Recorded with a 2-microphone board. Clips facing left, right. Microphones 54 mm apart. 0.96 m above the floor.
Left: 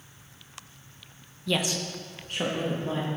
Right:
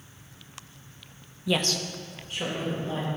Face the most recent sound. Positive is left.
turn(degrees=80)